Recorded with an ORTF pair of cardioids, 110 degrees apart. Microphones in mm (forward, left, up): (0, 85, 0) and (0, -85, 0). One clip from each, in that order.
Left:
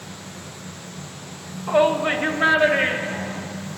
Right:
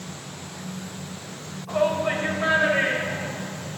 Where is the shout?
70° left, 1.2 m; by 3.5 s 45° left, 2.5 m.